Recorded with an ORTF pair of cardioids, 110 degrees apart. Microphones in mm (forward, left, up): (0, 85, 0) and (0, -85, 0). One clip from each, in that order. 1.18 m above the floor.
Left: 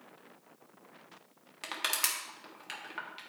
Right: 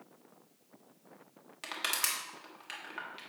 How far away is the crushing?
About 1.6 m.